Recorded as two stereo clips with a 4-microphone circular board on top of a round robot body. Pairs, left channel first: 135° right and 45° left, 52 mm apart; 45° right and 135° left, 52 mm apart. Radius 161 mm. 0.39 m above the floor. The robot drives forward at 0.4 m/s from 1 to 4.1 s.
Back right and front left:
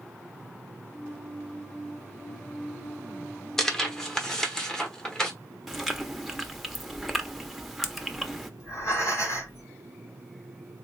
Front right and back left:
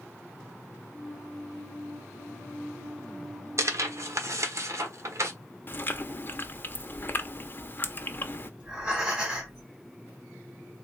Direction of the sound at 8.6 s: 155° right.